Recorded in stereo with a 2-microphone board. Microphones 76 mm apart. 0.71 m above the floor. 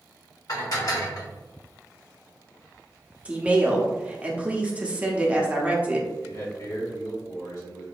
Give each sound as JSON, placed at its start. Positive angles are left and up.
{"t": 0.5, "sound": "dishes clattering", "side_deg": 55, "distance_m": 1.4}
{"t": 3.2, "sound": "a woman speaking", "side_deg": -15, "distance_m": 0.9}
{"t": 6.2, "sound": "a man speaking", "side_deg": 45, "distance_m": 1.9}